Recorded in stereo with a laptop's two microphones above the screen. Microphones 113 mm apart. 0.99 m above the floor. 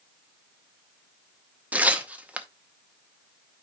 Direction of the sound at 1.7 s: 15° right (ahead or behind).